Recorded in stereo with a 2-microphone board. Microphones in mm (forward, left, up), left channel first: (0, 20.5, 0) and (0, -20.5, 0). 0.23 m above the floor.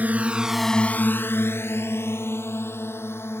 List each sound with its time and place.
0.0 s a drone: 40° right (ahead or behind); by 3.4 s 75° left (ahead or behind)